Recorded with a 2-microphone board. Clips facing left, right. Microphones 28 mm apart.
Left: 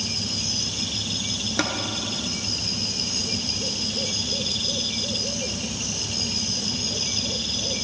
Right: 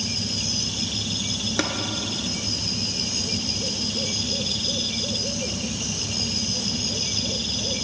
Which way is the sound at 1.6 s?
5° left (ahead or behind).